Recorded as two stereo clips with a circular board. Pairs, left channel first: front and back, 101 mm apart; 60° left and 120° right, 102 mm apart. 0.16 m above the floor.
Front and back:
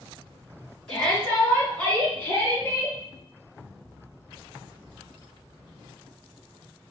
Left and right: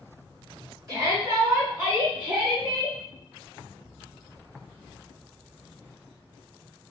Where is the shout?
80° right, 1.9 m; by 3.0 s 10° right, 1.3 m.